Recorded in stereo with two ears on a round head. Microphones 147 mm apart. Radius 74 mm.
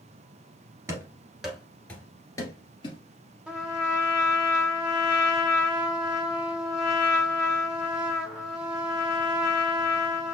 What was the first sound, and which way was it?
Running footsteps, 15° right (ahead or behind).